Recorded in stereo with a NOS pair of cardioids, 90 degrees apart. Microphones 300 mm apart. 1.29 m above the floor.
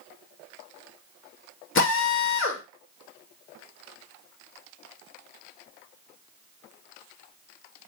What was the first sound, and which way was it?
A drill, 45° left.